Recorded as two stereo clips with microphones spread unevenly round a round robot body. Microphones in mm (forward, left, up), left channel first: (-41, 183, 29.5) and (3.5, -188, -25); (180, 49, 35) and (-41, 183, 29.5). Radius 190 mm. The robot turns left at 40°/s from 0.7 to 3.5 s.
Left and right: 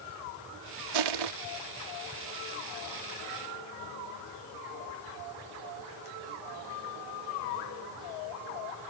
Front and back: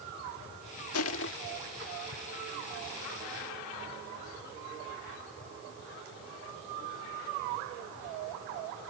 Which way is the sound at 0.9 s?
75° right.